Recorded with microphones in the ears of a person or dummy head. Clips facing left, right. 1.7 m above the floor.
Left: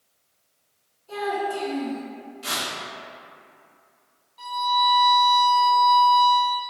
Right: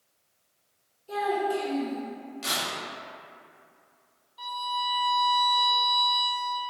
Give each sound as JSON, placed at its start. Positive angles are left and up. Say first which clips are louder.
{"t": 1.1, "sound": "a child speaking", "louder": "even", "side_deg": -30, "distance_m": 1.0}
{"t": 2.4, "sound": "tearing paper", "louder": "left 2 dB", "side_deg": -65, "distance_m": 1.0}
{"t": 4.4, "sound": "a violin", "louder": "left 9 dB", "side_deg": -5, "distance_m": 0.5}